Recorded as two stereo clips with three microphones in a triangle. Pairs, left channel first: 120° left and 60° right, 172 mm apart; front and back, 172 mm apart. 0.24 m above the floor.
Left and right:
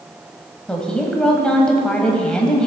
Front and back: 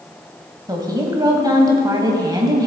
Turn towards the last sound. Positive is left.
turn(degrees=-165)